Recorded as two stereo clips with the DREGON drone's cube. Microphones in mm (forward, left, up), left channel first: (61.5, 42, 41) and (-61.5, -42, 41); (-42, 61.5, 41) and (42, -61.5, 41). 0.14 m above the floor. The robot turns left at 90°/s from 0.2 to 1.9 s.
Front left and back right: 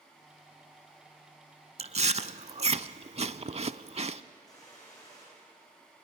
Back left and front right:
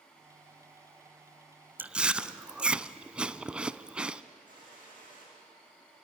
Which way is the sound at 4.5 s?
30° right.